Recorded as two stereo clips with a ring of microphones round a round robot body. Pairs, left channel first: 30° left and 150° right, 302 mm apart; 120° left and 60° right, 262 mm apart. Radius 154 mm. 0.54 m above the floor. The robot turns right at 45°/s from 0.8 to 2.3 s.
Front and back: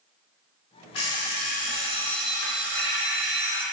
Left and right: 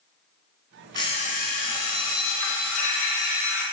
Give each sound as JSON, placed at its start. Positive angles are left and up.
{"t": 0.9, "sound": "an alarm clock", "azimuth_deg": 45, "distance_m": 3.0}